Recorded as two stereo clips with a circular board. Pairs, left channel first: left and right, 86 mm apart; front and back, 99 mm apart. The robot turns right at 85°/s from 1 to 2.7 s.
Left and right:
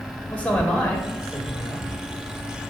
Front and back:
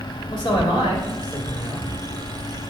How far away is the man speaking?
About 3 m.